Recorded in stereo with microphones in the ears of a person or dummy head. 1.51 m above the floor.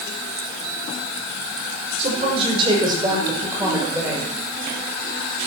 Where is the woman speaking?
40° right (ahead or behind), 5.5 m; by 4.3 s 10° right (ahead or behind), 6.5 m.